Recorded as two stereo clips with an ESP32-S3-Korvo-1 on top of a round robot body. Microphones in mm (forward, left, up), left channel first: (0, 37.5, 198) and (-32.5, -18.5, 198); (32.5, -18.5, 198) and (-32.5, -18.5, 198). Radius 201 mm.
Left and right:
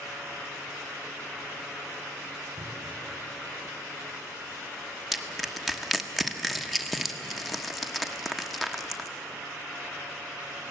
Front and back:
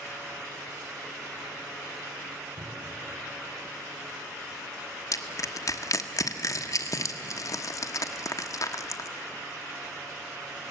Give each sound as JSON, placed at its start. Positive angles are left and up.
{"t": 2.6, "sound": "a cupboard door", "azimuth_deg": -150, "distance_m": 6.0}
{"t": 5.1, "sound": "crushing", "azimuth_deg": -30, "distance_m": 1.2}